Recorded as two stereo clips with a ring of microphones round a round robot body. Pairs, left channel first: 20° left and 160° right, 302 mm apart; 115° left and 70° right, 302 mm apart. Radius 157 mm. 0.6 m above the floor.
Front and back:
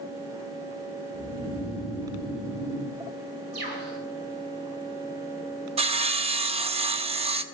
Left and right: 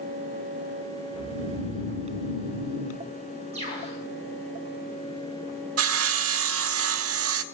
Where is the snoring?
105° right, 7.5 m.